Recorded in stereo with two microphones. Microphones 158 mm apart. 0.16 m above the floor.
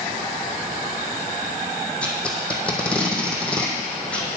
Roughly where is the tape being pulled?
Centre.